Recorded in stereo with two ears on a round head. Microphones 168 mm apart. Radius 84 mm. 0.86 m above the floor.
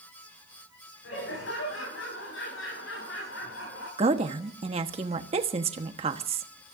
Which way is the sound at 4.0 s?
35° right (ahead or behind).